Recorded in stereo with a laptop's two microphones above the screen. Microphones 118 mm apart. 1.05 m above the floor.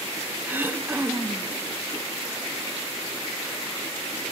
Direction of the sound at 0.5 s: 15° right (ahead or behind).